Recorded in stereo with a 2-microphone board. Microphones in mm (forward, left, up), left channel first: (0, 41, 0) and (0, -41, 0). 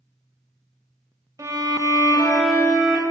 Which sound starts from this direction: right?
A violin, at 1.4 s.